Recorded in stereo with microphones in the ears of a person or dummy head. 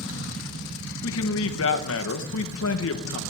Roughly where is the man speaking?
Left.